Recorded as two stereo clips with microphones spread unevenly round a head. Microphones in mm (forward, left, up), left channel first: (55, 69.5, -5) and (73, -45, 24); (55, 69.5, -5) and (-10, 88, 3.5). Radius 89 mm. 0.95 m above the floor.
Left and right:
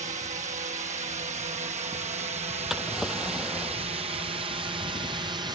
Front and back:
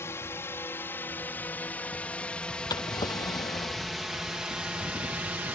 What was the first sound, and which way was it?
A drone, 70° right.